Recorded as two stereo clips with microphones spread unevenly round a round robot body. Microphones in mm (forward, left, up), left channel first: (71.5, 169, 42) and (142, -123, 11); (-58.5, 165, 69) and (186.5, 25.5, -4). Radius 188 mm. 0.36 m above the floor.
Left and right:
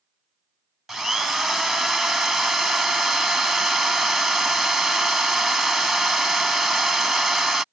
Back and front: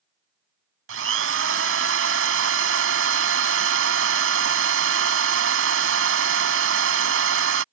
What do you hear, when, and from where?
0.9 s a drill: 15° left